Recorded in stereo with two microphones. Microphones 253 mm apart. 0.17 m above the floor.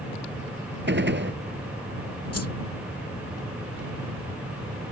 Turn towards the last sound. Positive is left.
turn(degrees=65)  # may be behind; listen again after turning